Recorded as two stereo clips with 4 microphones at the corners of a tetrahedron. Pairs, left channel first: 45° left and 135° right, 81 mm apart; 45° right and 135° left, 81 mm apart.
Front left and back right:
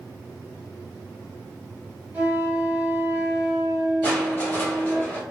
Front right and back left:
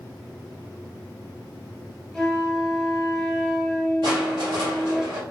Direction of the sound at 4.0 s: 110° left.